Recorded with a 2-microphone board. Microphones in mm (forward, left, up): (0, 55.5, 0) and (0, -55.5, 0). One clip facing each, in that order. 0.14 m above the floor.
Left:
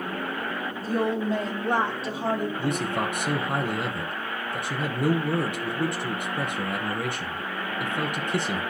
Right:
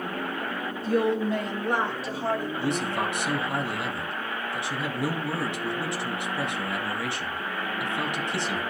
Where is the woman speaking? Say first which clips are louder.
Right 2 dB; 40° left (ahead or behind), 5 m; by 2.5 s 15° left (ahead or behind), 4 m.